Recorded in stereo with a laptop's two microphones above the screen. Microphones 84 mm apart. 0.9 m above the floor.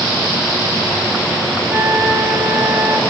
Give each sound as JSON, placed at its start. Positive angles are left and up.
{"t": 1.7, "sound": "a flute", "side_deg": -15, "distance_m": 5.5}